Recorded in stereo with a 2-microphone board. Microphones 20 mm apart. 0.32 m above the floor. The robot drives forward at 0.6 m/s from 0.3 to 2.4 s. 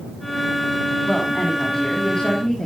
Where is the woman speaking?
40° left (ahead or behind), 3 m; by 2.7 s 30° left (ahead or behind), 3.5 m.